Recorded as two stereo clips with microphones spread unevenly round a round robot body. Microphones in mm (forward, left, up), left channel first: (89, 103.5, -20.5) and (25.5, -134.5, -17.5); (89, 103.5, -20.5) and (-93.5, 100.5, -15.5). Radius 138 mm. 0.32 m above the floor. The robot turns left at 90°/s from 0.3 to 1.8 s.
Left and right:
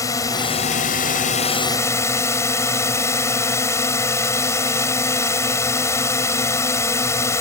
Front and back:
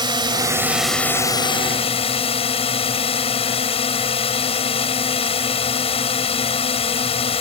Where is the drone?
140° left; by 7.4 s 5° left.